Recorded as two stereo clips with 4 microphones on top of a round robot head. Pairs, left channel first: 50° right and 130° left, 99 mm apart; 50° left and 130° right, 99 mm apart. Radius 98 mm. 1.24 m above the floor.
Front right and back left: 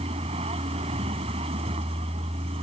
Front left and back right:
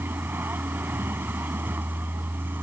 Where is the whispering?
No whispering in this recording.